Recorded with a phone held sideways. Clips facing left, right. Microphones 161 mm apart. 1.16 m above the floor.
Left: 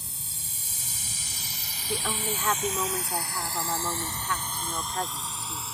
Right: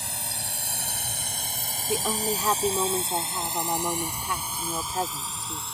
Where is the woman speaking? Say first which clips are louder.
Right 4 dB; 20° right (ahead or behind).